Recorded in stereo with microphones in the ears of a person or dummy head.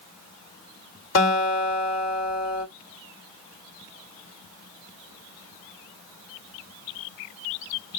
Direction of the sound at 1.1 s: 75° left (ahead or behind).